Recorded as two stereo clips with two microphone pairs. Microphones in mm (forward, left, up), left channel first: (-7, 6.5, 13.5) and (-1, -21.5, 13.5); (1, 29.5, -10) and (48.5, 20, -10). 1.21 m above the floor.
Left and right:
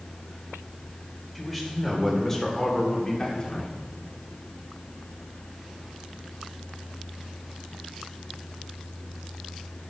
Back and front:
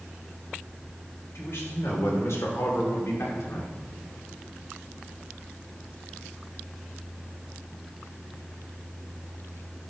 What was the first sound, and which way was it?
A man speaking, 170° right.